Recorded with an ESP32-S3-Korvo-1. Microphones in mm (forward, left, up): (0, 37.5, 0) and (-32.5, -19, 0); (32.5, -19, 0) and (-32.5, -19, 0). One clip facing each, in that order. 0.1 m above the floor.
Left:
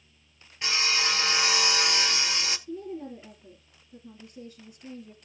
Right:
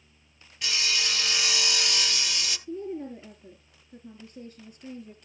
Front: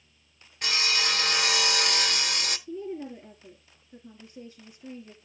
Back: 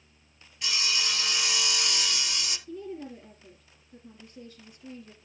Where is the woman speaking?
70° right, 3.5 m.